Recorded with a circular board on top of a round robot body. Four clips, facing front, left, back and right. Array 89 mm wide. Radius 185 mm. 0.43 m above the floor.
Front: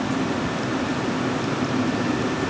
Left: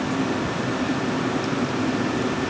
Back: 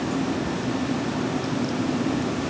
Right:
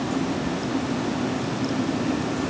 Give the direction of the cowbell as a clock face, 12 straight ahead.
I don't hear a cowbell.